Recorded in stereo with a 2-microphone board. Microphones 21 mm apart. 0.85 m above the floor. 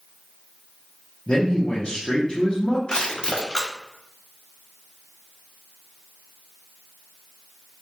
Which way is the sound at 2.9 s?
40° left (ahead or behind).